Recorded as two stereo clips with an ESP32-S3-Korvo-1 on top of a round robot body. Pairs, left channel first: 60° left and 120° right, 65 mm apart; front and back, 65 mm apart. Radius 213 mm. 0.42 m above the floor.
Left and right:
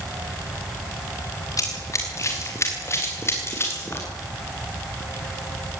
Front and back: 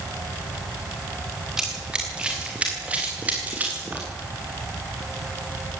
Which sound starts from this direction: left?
Running footsteps, at 1.6 s.